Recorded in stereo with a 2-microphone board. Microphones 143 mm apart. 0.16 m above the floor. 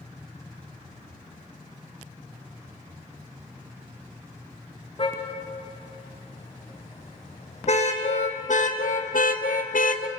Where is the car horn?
40° left (ahead or behind), 6 m; by 10.1 s 65° left (ahead or behind), 1.6 m.